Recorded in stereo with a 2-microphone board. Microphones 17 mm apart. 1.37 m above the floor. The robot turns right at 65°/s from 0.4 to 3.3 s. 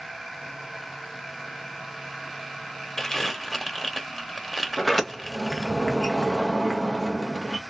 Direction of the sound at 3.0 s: 25° left (ahead or behind).